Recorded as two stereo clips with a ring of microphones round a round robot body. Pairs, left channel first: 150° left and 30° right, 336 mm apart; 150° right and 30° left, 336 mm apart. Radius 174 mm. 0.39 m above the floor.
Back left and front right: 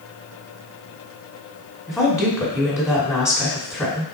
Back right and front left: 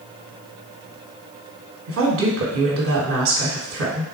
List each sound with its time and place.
1.9 s a woman speaking: 70° left, 1.6 m